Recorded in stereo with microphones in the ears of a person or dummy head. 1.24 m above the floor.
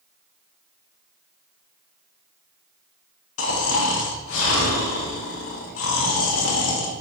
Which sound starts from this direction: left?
Snoring, at 3.4 s.